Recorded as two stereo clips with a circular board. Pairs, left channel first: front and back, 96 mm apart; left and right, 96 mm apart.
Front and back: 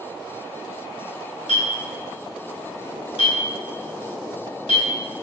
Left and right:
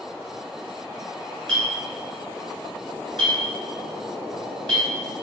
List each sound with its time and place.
1.5 s a clink: 10° left, 1.6 m